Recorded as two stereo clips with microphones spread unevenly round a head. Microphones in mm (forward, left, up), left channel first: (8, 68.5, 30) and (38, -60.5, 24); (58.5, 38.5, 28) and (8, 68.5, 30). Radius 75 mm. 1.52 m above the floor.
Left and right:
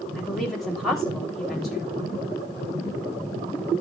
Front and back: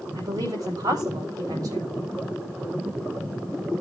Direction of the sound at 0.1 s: 170° right.